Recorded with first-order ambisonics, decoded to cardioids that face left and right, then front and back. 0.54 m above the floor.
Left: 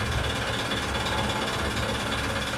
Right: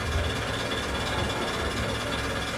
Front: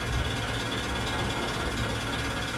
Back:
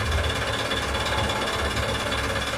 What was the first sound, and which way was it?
An engine running, 160° left.